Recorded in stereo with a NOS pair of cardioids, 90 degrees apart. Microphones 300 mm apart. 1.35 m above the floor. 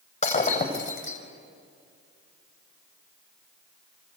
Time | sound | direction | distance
0.2 | breaking glass | 20° left | 5 m